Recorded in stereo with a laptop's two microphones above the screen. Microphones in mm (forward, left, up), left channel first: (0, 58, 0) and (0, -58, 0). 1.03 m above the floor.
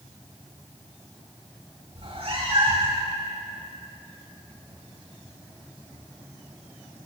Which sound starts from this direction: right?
A cat meowing, at 1.9 s.